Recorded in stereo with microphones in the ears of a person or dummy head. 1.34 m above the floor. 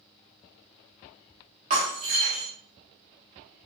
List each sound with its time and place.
1.7 s breaking glass: 30° right (ahead or behind), 0.8 m